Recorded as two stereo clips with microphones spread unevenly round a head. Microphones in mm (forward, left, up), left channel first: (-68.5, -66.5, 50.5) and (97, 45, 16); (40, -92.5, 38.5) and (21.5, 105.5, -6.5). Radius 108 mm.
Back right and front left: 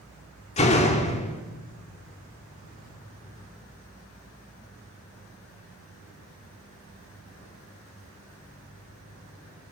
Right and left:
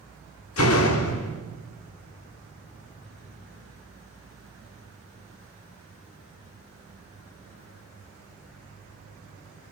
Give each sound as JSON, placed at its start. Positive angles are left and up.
{"t": 0.6, "sound": "a door slam", "azimuth_deg": -90, "distance_m": 3.0}